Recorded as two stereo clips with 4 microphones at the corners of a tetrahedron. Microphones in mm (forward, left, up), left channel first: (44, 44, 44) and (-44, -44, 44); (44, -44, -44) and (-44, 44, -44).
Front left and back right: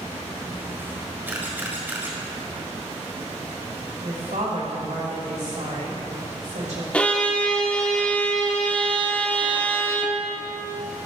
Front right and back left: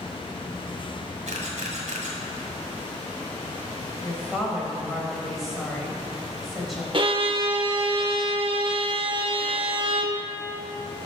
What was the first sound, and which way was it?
A camera shutter, 150° left.